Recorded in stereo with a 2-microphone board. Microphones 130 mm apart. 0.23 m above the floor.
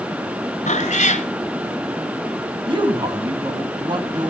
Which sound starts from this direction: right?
A man speaking, at 2.7 s.